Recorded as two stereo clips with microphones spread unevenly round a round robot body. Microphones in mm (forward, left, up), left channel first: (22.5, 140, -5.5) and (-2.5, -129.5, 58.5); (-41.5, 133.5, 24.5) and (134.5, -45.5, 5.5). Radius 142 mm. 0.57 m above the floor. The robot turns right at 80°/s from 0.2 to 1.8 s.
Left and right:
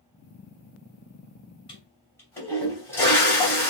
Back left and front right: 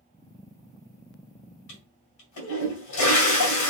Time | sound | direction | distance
1.7 | a toilet flushing | 155° left | 2.5 m